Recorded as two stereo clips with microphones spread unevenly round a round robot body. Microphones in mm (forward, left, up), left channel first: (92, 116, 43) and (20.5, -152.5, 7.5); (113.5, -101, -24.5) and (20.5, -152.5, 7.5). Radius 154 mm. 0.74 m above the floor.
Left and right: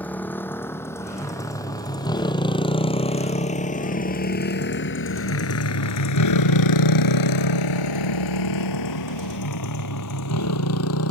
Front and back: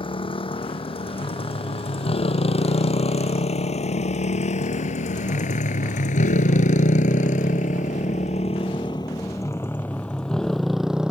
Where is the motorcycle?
10° right; by 11.1 s 125° left.